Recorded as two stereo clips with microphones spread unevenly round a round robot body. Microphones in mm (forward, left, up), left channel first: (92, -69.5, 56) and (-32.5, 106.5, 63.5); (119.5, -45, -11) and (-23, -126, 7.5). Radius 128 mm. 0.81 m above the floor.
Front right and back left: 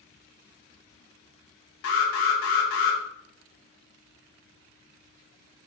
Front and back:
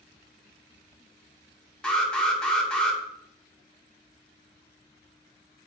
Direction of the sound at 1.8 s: 55° right.